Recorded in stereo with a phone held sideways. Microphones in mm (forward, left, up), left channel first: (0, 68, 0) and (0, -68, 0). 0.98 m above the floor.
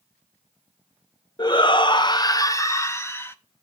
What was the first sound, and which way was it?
A shout, 30° left (ahead or behind).